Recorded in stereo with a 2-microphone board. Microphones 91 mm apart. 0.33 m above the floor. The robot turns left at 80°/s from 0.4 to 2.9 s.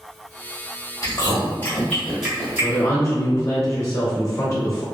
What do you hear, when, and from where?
1.0 s chewing: 40° left (ahead or behind), 1.8 m; by 2.9 s 35° right (ahead or behind), 1.8 m
2.6 s a woman speaking: 35° left (ahead or behind), 1.0 m